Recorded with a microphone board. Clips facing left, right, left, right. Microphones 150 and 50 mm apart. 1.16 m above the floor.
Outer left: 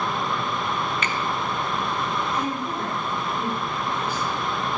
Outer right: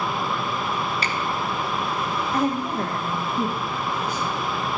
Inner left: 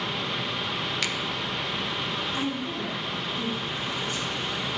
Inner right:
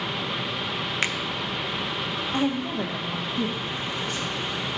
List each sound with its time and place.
1.0 s a finger snap: 35° right (ahead or behind), 0.6 m
2.3 s a woman speaking: 70° right (ahead or behind), 1.6 m